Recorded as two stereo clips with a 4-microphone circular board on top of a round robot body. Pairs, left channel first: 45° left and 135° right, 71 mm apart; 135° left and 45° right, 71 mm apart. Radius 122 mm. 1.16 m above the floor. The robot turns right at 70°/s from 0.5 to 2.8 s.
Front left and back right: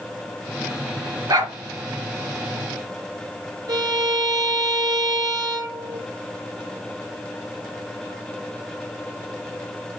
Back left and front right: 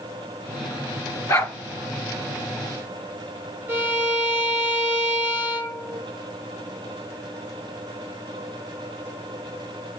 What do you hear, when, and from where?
1.3 s a dog barking: straight behind, 2.5 m; by 1.5 s 165° right, 2.5 m
3.7 s a violin: 105° right, 2.5 m